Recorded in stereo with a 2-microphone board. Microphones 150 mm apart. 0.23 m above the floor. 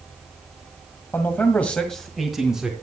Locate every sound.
1.1 s a man speaking: 15° left (ahead or behind), 1.6 m; by 2.7 s 5° right (ahead or behind), 2.5 m